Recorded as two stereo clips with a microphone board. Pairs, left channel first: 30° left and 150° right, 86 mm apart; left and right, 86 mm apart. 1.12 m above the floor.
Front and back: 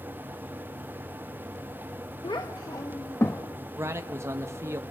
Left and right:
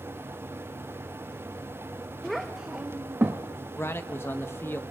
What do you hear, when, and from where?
2.2 s a child speaking: 5° left, 0.8 m; by 3.4 s 30° right, 1.1 m
3.8 s a man speaking: 150° left, 1.0 m